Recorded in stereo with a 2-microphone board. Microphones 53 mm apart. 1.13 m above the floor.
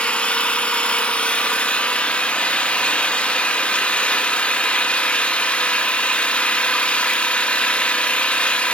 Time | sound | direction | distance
0.0 | an engine running | 20° left (ahead or behind) | 1.1 m